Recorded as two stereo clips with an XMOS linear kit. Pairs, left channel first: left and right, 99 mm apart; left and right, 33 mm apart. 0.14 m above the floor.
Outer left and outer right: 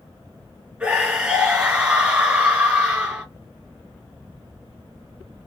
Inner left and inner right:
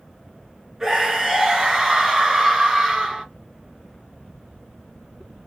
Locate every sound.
0.8 s a scream: 10° right (ahead or behind), 2 m